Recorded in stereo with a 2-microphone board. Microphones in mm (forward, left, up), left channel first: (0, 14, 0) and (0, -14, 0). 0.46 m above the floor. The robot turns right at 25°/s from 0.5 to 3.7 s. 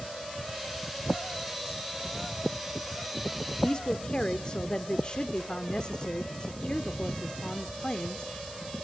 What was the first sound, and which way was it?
A woman speaking, 30° left (ahead or behind).